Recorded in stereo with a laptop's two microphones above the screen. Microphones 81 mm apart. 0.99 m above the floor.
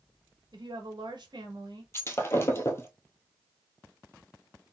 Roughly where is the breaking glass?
Left.